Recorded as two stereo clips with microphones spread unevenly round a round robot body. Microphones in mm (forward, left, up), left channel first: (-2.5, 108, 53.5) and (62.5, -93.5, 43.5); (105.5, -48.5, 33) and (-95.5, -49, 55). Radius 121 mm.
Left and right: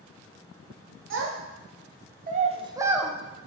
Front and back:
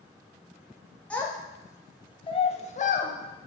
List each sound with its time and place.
1.1 s a child speaking: 80° right, 1.8 m; by 3.1 s 15° left, 1.1 m